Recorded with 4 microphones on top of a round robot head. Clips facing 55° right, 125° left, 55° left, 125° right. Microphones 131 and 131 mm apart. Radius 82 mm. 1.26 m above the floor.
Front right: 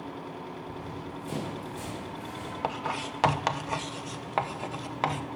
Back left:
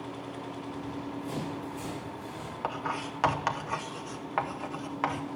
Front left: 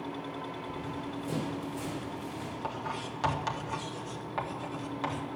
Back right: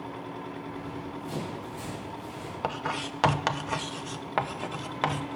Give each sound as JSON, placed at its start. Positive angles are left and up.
{"t": 0.7, "sound": "running footsteps", "azimuth_deg": 10, "distance_m": 5.5}
{"t": 2.6, "sound": "writing", "azimuth_deg": -115, "distance_m": 0.7}